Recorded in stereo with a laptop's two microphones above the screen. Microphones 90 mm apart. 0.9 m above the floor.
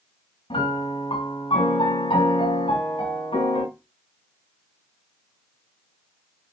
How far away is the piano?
About 5 m.